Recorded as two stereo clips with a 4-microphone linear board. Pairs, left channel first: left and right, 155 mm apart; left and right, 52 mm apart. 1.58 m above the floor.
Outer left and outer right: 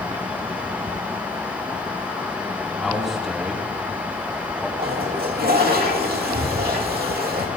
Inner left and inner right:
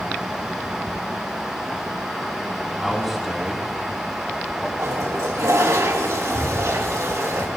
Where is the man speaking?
Centre (ahead or behind), 3.5 m; by 4.7 s 5° right (ahead or behind), 2.5 m.